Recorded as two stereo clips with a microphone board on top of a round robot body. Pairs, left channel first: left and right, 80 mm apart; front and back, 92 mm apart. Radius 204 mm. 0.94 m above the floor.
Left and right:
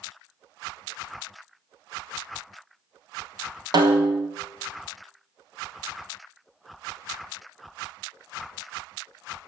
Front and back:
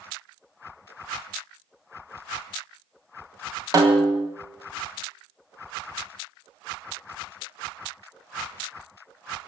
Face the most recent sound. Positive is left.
turn(degrees=-130)